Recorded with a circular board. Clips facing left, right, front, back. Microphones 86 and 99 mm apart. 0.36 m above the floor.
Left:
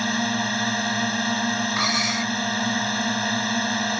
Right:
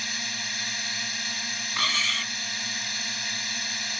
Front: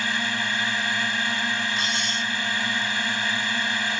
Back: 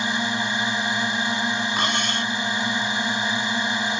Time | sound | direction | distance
0.0 | a drone | 115° left | ?
1.8 | cutlery clinking | 160° left | ?